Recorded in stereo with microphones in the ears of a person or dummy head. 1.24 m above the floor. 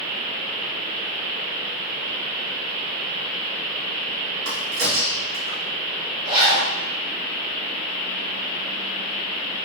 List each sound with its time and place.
4.5 s a crack: 80° right, 1.7 m
6.2 s a zipper: 25° right (ahead or behind), 1.6 m